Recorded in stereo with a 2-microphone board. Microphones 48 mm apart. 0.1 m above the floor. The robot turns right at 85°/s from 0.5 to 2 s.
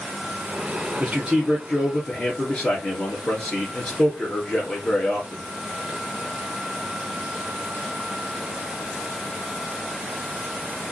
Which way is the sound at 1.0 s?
45° right.